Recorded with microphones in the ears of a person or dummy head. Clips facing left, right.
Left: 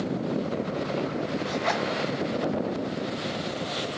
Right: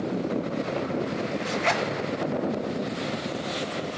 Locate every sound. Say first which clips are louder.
1.4 s a zipper: right 1 dB; 30° right (ahead or behind), 1.0 m